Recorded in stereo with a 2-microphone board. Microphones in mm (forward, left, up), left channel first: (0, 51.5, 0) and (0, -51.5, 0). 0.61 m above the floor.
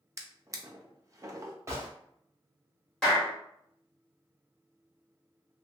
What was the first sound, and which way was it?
A drawer, 30° right (ahead or behind).